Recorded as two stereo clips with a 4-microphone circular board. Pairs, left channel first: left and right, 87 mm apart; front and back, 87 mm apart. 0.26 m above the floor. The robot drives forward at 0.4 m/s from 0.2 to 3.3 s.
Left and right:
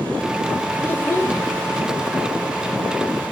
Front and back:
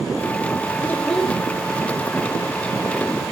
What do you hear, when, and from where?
0.8 s a child speaking: 45° left, 0.5 m; by 1.4 s 95° left, 0.5 m